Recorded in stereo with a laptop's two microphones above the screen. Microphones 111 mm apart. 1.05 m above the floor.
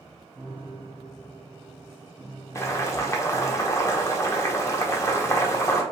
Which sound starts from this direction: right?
A piano, at 0.3 s.